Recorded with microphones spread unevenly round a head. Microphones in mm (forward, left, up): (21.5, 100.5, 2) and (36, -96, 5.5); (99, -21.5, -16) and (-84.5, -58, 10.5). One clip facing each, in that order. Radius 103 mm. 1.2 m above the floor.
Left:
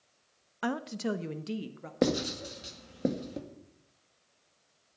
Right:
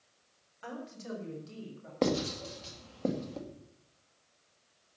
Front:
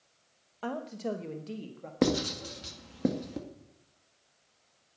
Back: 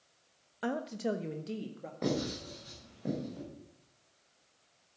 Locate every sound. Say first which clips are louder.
0.6 s a woman speaking: left 10 dB, back 1 dB; 115° left, 0.6 m; by 1.9 s 105° left, 1.5 m
2.0 s writing: left 2 dB, front 6 dB; 25° left, 2 m